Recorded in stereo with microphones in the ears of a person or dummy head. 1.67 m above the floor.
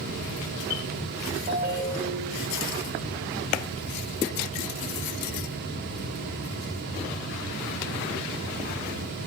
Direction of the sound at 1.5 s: 45° right (ahead or behind).